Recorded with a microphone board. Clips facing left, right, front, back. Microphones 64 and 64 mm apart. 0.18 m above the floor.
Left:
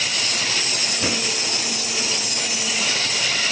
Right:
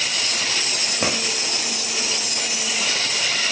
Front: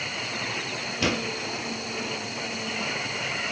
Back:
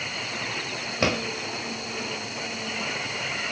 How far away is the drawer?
About 1.8 m.